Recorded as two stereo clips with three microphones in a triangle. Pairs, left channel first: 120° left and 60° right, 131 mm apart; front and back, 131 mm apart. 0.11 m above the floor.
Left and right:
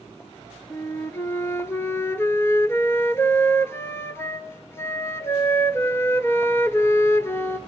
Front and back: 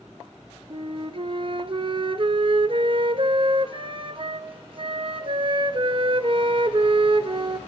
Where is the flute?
175° right, 1.1 m.